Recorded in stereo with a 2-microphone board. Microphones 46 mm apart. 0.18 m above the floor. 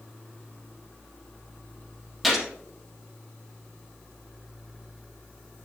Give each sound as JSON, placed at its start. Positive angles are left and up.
{"t": 2.2, "sound": "a gunshot", "side_deg": -5, "distance_m": 3.5}